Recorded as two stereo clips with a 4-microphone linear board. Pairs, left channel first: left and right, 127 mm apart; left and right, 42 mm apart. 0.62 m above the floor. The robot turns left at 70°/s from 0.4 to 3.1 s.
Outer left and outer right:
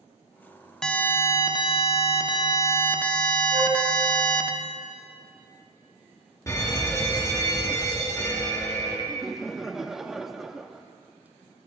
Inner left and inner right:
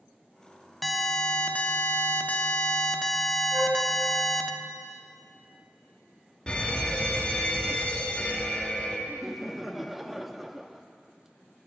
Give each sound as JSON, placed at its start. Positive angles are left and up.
{"t": 0.8, "sound": "an alarm", "azimuth_deg": 175, "distance_m": 0.9}
{"t": 3.5, "sound": "a flute", "side_deg": -90, "distance_m": 5.5}
{"t": 6.5, "sound": "a fire alarm", "side_deg": 25, "distance_m": 1.7}
{"t": 9.1, "sound": "laughter", "side_deg": -5, "distance_m": 0.6}